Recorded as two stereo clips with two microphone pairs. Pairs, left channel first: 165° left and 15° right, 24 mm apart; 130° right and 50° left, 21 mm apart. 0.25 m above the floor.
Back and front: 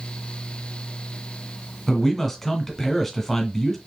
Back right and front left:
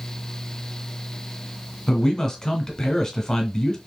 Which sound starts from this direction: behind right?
A man speaking, at 1.9 s.